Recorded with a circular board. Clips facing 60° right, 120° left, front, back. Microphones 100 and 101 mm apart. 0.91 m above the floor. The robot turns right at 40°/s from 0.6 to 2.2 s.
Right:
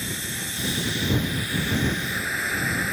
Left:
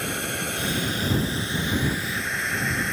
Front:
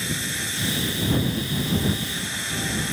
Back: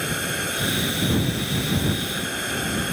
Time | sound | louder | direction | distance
0.0 | running water | left 4 dB, back 4 dB | 150° left | ?